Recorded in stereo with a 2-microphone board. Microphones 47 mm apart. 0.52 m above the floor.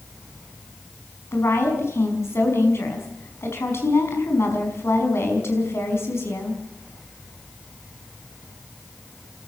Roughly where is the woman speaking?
Left.